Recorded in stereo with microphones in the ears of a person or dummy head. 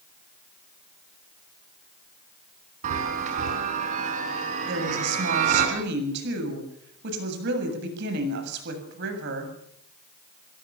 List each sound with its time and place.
2.8 s a chime: 45° right (ahead or behind), 5 m
4.7 s a woman speaking: 65° right (ahead or behind), 8 m